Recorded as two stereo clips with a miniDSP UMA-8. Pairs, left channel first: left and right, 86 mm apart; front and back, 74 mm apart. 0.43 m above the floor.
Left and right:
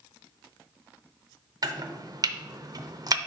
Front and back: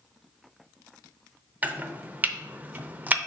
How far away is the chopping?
About 0.5 m.